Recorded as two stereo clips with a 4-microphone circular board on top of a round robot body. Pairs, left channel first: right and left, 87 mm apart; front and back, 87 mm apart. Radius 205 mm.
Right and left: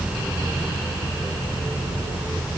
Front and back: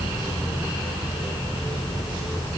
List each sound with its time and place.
Only background noise.